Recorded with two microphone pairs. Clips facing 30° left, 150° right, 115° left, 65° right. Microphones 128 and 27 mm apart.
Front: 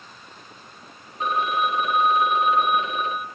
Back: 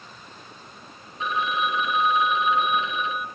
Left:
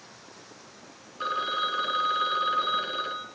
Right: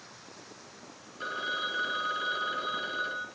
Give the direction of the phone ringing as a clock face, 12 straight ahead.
10 o'clock.